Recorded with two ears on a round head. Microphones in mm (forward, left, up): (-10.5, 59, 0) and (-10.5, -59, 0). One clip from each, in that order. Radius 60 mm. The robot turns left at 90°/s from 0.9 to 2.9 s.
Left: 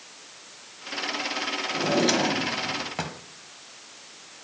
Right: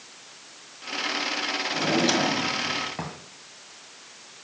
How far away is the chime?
No chime in this recording.